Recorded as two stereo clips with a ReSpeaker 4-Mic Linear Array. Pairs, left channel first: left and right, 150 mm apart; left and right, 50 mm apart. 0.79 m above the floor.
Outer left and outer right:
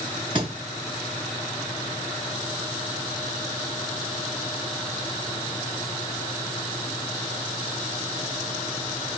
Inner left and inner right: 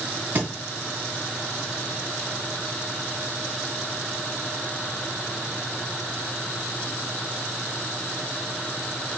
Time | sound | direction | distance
0.3 | a thud | 35° right (ahead or behind) | 1.8 m